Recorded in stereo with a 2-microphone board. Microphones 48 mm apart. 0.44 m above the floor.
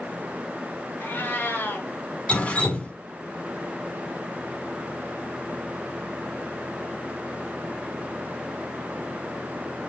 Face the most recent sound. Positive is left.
turn(degrees=25)  # may be behind; listen again after turning